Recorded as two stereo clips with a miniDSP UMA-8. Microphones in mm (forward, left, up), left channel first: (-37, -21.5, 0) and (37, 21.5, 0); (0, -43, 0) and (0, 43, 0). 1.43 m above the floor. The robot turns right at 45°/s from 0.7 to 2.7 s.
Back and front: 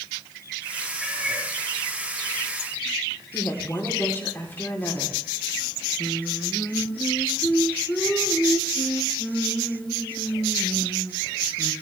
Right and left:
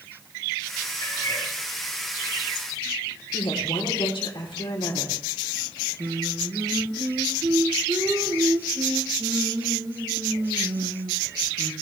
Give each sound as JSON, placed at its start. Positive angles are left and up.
{"t": 1.0, "sound": "a cat meowing", "azimuth_deg": -55, "distance_m": 2.5}
{"t": 3.3, "sound": "a woman speaking", "azimuth_deg": -85, "distance_m": 3.5}
{"t": 6.0, "sound": "singing", "azimuth_deg": 130, "distance_m": 2.0}